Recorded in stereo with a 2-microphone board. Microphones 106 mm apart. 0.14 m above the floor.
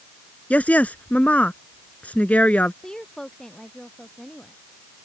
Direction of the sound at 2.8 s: 5° left (ahead or behind).